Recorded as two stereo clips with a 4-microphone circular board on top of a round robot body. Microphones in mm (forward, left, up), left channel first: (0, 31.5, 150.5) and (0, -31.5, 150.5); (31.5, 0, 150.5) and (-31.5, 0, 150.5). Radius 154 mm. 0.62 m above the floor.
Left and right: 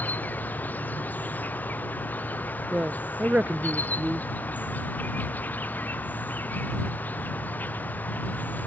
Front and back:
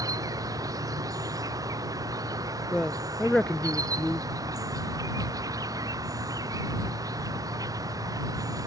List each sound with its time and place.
0.0 s an insect: 155° left
2.7 s a woman speaking: 60° right